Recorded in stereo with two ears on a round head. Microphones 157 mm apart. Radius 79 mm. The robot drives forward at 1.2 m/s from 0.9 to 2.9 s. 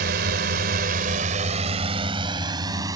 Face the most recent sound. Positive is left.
turn(degrees=-20)  # may be behind; listen again after turning